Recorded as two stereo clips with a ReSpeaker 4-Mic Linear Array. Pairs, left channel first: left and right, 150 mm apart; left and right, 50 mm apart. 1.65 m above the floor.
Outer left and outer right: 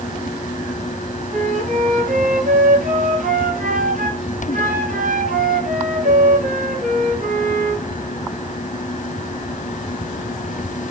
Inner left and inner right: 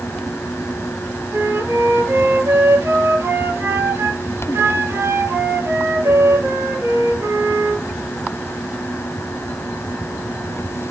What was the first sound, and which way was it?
A flute, 65° right (ahead or behind).